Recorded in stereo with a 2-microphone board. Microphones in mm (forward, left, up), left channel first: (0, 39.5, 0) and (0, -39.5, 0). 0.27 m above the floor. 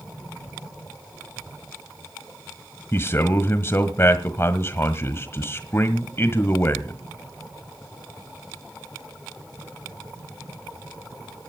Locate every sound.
2.9 s a man speaking: 35° left (ahead or behind), 1.4 m